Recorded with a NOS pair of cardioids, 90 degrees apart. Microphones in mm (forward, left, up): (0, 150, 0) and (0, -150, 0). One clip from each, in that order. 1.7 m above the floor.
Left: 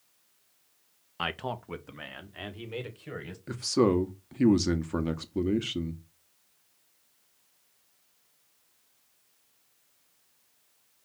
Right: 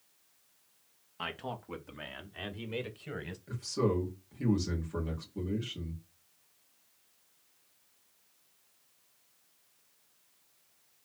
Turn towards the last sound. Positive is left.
turn(degrees=60)